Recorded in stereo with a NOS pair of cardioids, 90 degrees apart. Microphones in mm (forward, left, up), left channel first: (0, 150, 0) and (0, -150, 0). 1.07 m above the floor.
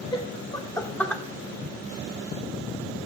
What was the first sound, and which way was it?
Laughter, 15° left.